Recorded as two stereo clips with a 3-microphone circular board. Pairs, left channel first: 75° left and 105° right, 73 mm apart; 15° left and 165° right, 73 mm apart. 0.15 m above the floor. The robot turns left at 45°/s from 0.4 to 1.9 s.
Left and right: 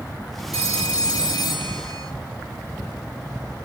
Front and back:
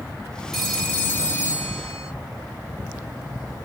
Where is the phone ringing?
105° left, 2.5 m; by 2.1 s 40° left, 2.5 m.